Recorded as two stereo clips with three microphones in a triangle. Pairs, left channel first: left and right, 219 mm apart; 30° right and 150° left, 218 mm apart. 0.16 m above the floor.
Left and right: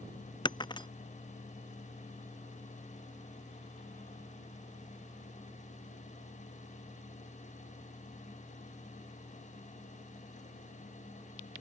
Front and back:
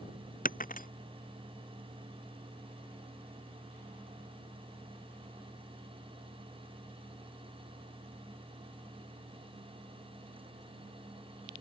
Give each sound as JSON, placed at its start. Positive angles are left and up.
{"t": 0.5, "sound": "breaking glass", "azimuth_deg": 20}